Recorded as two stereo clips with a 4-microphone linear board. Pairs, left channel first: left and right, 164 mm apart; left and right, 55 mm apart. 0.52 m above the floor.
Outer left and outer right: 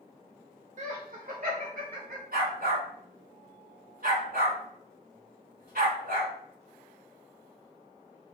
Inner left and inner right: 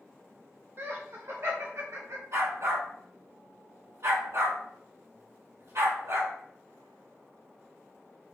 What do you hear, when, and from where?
0.8 s laughter: 50° right (ahead or behind), 1.4 m; by 2.2 s 65° right (ahead or behind), 2.5 m
2.3 s a dog barking: 65° right (ahead or behind), 1.9 m